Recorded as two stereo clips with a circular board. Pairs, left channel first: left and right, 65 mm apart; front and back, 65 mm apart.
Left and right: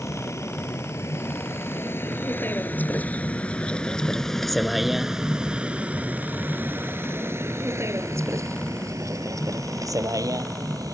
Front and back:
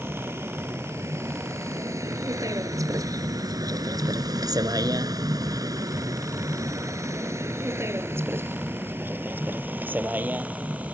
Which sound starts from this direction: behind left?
A vehicle, at 0.0 s.